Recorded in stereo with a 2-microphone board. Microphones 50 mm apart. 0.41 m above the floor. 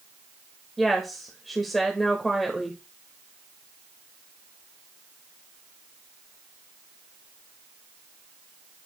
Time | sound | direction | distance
0.8 | a woman speaking | centre (ahead or behind) | 1.2 m